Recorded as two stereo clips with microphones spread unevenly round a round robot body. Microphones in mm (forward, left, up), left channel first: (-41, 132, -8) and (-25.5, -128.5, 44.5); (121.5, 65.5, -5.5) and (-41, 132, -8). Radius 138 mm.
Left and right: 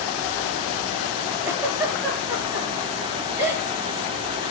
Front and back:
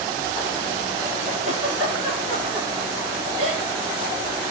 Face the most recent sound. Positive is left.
turn(degrees=-170)